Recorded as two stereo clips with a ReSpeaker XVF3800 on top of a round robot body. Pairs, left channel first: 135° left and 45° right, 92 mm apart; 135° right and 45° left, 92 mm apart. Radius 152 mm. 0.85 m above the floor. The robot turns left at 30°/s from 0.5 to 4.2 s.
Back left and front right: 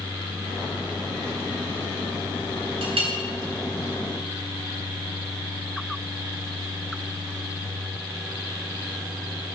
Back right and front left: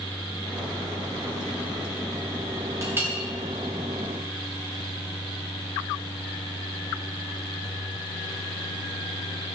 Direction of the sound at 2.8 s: 20° right.